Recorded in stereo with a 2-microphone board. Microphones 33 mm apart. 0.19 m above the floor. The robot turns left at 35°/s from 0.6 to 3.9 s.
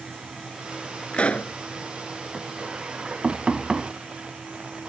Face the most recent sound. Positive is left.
turn(degrees=-25)  # may be behind; listen again after turning